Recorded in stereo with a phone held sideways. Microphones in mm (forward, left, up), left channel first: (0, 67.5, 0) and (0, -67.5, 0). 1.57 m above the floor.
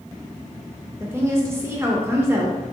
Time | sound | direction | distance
1.0 | a woman speaking | 20° right (ahead or behind) | 0.6 m